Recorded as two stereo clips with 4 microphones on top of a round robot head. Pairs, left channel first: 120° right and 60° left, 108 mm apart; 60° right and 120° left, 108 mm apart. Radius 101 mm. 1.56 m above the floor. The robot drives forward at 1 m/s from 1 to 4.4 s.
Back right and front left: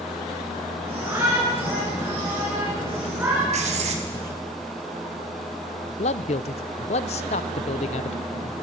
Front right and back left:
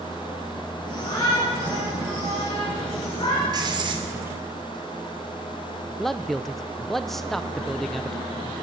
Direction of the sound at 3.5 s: 70° left.